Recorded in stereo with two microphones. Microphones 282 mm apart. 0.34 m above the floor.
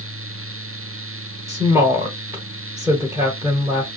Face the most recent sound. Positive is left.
turn(degrees=-10)  # may be behind; listen again after turning